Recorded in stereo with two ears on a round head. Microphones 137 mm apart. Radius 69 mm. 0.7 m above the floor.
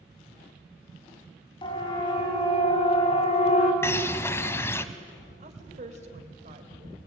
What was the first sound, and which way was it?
A siren, 35° left (ahead or behind).